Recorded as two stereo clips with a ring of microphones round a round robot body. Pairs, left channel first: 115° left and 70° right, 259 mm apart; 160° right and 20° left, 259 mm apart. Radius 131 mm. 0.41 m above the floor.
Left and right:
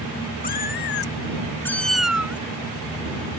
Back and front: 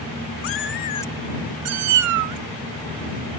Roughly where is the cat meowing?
Behind.